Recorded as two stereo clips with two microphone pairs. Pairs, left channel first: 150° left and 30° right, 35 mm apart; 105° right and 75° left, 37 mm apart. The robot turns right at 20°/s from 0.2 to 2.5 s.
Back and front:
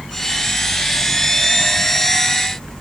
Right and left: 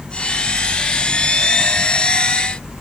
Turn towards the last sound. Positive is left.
No sound to turn to.